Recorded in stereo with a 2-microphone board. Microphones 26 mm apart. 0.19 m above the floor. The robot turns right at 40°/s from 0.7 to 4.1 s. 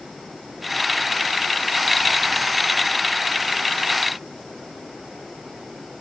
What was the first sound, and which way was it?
Only background noise.